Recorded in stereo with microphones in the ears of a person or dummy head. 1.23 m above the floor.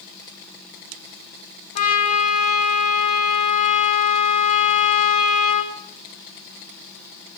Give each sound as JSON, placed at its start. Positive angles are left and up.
{"t": 1.8, "sound": "a trumpet", "side_deg": 40, "distance_m": 1.6}